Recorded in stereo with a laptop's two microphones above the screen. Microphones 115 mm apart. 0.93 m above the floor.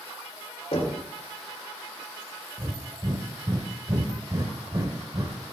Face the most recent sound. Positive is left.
turn(degrees=-35)  # may be behind; listen again after turning